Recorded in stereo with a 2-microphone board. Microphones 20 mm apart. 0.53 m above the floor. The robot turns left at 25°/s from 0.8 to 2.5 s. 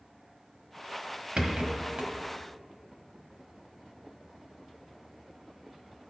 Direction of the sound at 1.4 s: 75° right (ahead or behind).